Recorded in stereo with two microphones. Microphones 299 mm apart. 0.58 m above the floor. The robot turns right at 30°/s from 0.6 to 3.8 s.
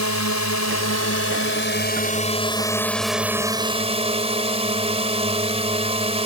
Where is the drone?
105° left; by 6.3 s 160° right.